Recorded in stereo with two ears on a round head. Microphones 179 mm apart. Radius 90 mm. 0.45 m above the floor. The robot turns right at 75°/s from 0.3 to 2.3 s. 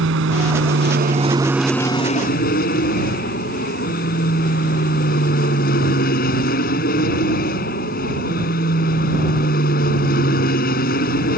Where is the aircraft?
100° right; by 11.4 s 50° left.